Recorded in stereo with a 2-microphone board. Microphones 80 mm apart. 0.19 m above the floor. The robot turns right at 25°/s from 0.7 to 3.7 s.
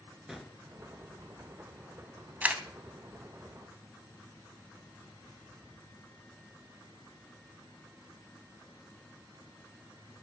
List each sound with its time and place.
0.3 s a gunshot: 5° right (ahead or behind), 0.8 m
2.4 s a camera shutter: 15° right (ahead or behind), 0.6 m